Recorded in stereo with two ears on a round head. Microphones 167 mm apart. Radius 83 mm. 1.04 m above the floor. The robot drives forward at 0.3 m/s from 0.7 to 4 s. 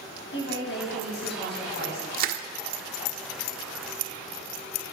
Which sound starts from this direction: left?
A woman speaking, at 0.3 s.